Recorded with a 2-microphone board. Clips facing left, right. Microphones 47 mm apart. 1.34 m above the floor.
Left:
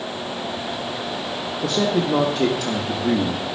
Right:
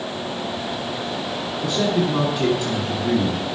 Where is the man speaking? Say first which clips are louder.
Even; 65° left (ahead or behind), 1.5 m.